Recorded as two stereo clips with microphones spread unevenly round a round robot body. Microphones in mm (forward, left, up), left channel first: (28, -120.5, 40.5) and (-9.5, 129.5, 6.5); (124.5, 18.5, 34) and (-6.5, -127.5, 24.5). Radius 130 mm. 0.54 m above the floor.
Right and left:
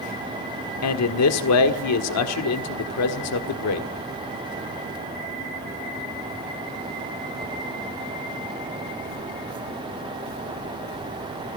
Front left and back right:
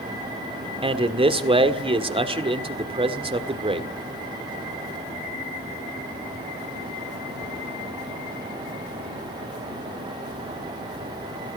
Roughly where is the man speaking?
Right.